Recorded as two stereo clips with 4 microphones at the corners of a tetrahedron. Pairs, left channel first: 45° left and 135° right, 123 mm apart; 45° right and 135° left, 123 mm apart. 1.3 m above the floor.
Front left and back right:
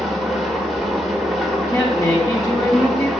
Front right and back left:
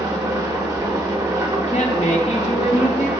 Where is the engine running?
135° left, 1.1 m.